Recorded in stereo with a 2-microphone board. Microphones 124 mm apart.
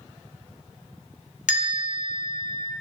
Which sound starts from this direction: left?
A bell, at 1.5 s.